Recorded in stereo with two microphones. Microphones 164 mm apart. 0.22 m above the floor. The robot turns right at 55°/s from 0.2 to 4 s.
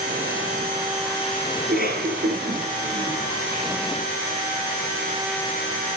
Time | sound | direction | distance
1.6 | a cough | 60° right (ahead or behind) | 5.5 m